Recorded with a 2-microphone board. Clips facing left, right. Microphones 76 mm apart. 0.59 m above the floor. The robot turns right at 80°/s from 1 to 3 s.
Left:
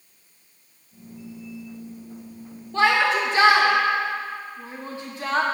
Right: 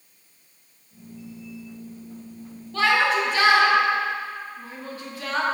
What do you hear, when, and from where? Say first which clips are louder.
2.7 s a shout: left 1 dB; 25° left (ahead or behind), 0.7 m